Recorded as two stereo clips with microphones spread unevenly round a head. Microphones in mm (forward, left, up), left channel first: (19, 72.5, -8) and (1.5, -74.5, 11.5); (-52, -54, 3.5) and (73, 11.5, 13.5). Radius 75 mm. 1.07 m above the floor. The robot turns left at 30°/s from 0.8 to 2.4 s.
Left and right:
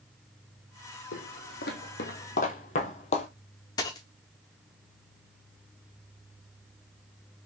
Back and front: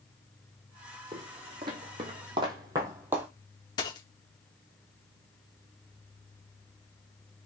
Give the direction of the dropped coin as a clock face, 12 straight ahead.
7 o'clock.